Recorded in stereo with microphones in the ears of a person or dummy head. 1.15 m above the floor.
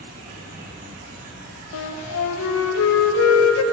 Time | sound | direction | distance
0.0 | an insect | 45° right (ahead or behind) | 1.0 m
1.7 | a flute | 75° left (ahead or behind) | 0.7 m